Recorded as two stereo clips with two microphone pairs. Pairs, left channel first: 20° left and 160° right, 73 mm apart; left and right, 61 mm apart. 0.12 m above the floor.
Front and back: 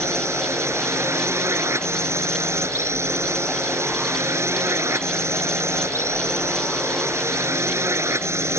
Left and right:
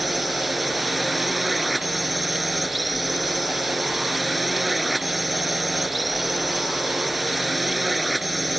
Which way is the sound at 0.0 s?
Straight behind.